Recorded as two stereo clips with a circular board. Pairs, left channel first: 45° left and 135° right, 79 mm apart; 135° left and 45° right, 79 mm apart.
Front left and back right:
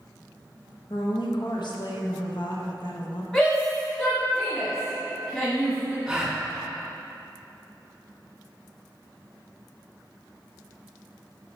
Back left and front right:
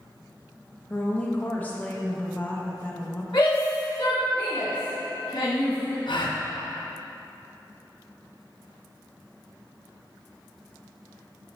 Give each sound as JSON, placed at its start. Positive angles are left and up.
{"t": 0.9, "sound": "a woman speaking", "azimuth_deg": 65, "distance_m": 1.0}
{"t": 3.3, "sound": "a shout", "azimuth_deg": 115, "distance_m": 1.4}
{"t": 6.1, "sound": "a gasp", "azimuth_deg": 140, "distance_m": 0.7}